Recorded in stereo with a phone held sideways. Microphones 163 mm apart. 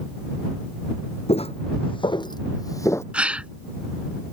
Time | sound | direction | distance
1.3 | footsteps | 40° left (ahead or behind) | ?
3.1 | a gasp | 10° right (ahead or behind) | ?